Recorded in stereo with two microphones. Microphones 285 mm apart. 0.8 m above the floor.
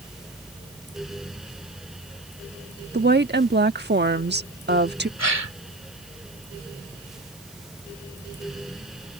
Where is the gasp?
65° right (ahead or behind).